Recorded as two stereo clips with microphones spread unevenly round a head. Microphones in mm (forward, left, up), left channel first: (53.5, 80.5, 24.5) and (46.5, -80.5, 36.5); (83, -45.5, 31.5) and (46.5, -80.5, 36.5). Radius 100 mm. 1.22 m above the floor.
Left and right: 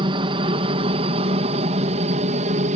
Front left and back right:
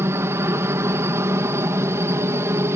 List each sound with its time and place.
0.0 s a helicopter: 150° right; by 2.8 s 135° right